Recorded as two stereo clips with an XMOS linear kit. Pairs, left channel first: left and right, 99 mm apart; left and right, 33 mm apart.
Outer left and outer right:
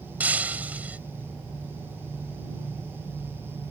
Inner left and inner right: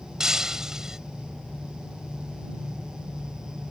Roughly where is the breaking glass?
Centre.